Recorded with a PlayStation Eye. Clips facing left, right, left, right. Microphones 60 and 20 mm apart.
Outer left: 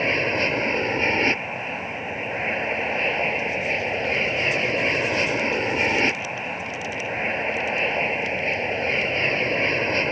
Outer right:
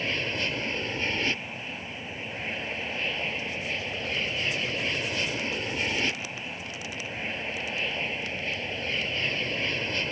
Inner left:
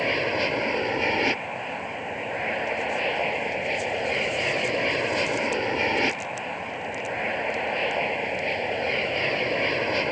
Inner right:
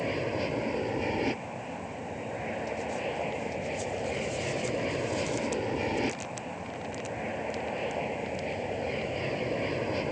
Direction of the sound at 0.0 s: 45° left (ahead or behind).